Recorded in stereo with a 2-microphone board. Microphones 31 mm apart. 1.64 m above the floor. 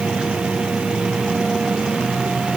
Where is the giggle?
I don't hear a giggle.